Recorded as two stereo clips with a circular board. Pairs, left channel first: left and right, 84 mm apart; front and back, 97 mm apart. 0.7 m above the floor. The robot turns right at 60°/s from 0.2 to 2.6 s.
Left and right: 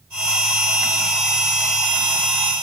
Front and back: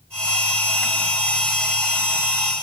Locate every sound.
Only background noise.